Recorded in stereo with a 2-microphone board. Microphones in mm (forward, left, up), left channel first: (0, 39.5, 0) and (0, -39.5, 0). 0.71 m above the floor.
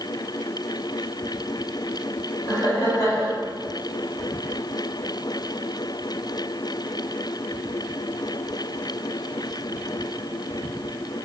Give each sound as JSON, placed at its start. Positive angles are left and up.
{"t": 2.5, "sound": "laughter", "side_deg": 40, "distance_m": 1.9}